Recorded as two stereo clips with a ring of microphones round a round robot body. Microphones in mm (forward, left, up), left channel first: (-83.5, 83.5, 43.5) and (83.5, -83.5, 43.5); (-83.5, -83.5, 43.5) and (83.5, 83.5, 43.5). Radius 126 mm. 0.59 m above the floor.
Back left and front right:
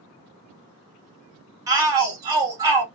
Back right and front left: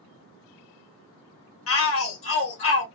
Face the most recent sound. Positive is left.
turn(degrees=-120)